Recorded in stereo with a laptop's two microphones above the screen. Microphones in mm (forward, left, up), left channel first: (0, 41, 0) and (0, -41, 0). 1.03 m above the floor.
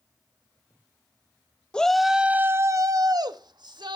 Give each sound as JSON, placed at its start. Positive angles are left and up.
{"t": 1.7, "sound": "a shout", "side_deg": 10, "distance_m": 0.9}